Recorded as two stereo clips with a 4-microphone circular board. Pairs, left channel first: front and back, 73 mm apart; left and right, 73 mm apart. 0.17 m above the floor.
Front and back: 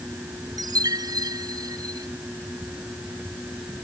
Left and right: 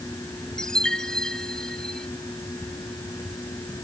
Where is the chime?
170° left.